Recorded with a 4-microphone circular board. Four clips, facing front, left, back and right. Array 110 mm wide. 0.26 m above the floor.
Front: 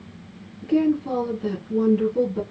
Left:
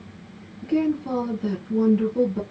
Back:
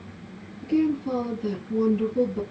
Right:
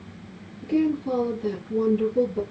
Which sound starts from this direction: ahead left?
A woman speaking, at 0.6 s.